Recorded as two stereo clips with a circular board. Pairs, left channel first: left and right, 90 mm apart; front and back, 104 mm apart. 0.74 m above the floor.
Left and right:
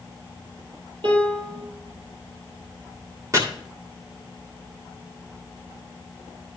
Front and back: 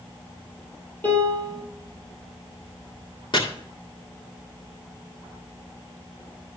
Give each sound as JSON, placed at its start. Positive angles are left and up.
{"t": 1.0, "sound": "a piano", "azimuth_deg": -70, "distance_m": 4.5}
{"t": 3.3, "sound": "chopping", "azimuth_deg": -35, "distance_m": 2.0}